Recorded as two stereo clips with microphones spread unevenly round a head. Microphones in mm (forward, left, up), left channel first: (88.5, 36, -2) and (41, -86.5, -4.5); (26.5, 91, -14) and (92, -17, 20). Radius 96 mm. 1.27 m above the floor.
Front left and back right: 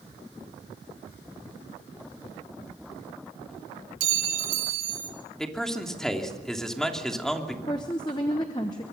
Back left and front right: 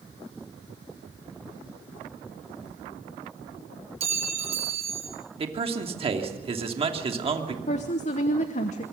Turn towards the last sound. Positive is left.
turn(degrees=135)